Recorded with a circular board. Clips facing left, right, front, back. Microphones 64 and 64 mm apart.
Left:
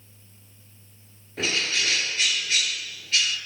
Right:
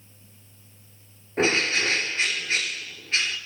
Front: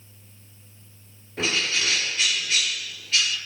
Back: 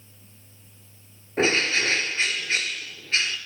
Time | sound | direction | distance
1.4 | a bird | 135° right | 1.2 m